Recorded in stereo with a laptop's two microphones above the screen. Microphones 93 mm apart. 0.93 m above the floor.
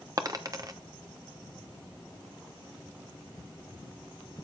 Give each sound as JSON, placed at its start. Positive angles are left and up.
{"t": 0.2, "sound": "a dropped coin", "side_deg": -40, "distance_m": 0.6}